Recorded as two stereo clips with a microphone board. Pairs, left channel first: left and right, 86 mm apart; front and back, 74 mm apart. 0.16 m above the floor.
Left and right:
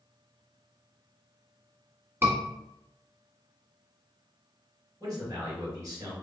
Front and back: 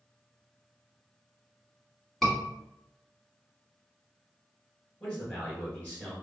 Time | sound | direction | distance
2.2 | a scream | 80° right | 1.2 m
5.0 | a man speaking | 70° right | 1.7 m